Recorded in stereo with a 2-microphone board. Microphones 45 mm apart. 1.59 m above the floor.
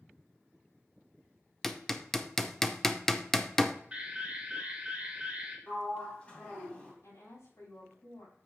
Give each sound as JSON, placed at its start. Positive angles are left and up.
{"t": 1.6, "sound": "hammering", "side_deg": 5, "distance_m": 0.6}
{"t": 3.9, "sound": "an alarm", "side_deg": -20, "distance_m": 3.0}
{"t": 5.7, "sound": "a sliding door", "side_deg": 25, "distance_m": 2.5}
{"t": 7.0, "sound": "a woman speaking", "side_deg": 80, "distance_m": 4.5}